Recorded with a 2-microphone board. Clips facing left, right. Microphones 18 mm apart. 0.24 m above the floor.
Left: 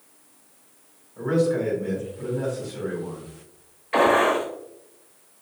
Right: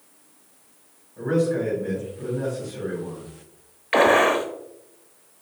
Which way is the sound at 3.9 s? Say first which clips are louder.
Right 2 dB; 65° right (ahead or behind).